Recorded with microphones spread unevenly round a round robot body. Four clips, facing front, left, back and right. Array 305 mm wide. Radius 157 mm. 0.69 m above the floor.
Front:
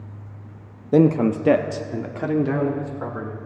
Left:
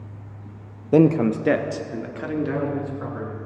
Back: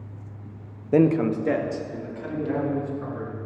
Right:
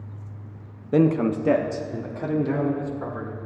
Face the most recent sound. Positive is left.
turn(degrees=-15)